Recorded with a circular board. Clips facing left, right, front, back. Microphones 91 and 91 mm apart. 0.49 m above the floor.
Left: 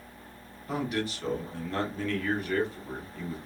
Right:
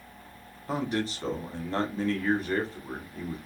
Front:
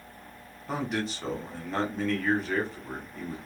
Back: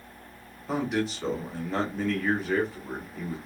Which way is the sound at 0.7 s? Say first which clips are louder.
Right 1 dB, back 3 dB; 95° right.